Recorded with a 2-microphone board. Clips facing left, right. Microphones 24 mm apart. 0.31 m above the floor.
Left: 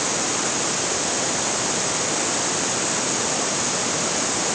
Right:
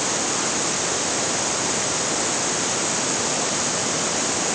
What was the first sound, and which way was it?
Only background noise.